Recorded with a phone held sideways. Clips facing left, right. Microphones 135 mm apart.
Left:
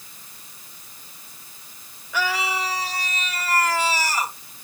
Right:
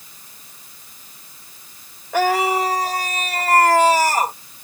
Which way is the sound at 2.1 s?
55° right (ahead or behind).